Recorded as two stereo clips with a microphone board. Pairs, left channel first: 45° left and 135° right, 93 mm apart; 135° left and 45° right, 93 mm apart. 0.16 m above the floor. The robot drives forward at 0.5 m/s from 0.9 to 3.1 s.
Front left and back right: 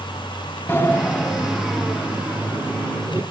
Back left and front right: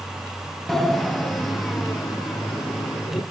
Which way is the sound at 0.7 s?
50° left.